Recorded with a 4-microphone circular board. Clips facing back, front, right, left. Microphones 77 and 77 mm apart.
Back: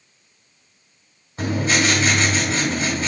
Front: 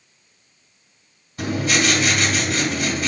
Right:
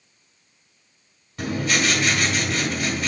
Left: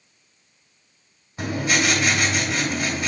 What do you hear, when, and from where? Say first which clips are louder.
1.4 s writing: back 1 dB, left 1 dB; 155° left, 1.8 m